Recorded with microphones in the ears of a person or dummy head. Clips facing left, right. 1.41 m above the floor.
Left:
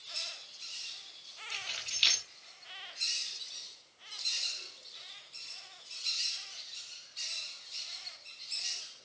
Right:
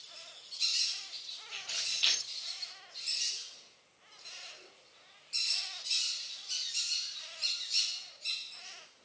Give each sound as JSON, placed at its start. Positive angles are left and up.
{"t": 1.5, "sound": "keys jangling", "side_deg": 40, "distance_m": 7.0}